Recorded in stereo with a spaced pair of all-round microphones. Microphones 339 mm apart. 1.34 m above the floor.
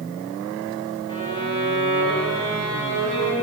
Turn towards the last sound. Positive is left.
turn(degrees=15)  # may be behind; listen again after turning